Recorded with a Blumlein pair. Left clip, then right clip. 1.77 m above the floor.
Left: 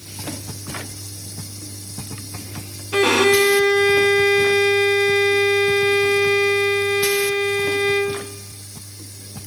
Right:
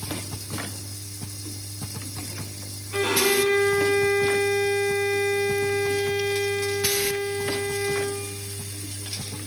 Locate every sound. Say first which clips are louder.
2.9 s a violin: left 7 dB; 60° left, 1.5 m